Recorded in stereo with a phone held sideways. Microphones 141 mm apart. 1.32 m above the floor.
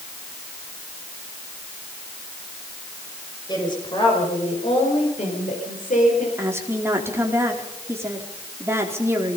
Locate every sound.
3.5 s a woman speaking: 30° left (ahead or behind), 6 m; by 6.3 s 70° left (ahead or behind), 5 m
6.4 s a woman speaking: 15° right (ahead or behind), 4 m